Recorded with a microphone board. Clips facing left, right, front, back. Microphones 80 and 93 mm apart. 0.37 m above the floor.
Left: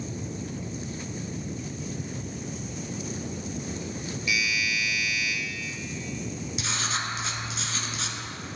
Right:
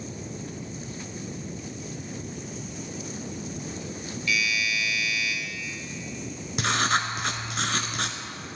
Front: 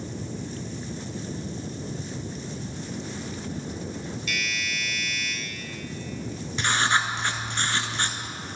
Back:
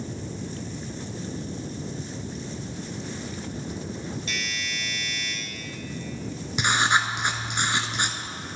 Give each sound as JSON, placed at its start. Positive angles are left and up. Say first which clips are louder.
{"t": 4.3, "sound": "a doorbell", "louder": "right 1 dB, front 1 dB", "azimuth_deg": 150, "distance_m": 2.0}
{"t": 6.6, "sound": "writing", "louder": "right 9 dB, back 1 dB", "azimuth_deg": -110, "distance_m": 0.7}